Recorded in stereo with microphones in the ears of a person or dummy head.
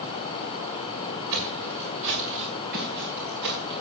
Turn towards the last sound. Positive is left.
turn(degrees=-55)  # may be behind; listen again after turning